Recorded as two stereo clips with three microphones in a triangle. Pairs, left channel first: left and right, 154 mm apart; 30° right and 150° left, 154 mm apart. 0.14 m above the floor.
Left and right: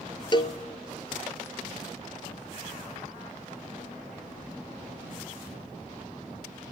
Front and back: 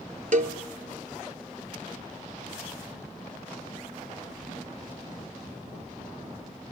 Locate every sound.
0.3 s a cowbell: 140° left, 0.8 m